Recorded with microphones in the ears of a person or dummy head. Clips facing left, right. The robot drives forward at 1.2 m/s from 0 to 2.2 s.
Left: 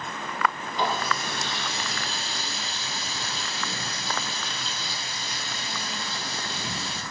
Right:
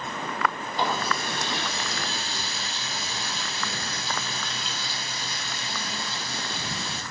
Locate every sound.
0.8 s a running tap: 35° right (ahead or behind), 6.5 m; by 7.0 s 45° right (ahead or behind), 5 m